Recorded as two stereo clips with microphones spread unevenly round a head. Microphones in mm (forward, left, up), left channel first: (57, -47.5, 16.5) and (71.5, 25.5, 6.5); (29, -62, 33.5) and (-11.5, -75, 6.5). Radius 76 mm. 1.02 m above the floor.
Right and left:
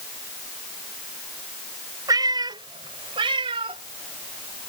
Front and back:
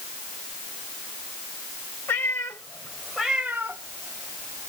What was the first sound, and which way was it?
A cat meowing, 45° left.